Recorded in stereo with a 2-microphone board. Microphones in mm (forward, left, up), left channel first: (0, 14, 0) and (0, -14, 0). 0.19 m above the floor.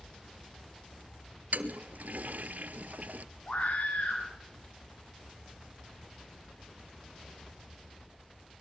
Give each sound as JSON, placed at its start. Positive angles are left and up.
{"t": 1.5, "sound": "a toilet flushing", "side_deg": -80, "distance_m": 0.9}
{"t": 3.5, "sound": "a scream", "side_deg": 55, "distance_m": 2.5}